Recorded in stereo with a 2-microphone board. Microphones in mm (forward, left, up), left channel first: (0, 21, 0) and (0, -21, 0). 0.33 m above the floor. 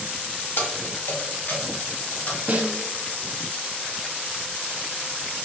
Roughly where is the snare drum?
Right.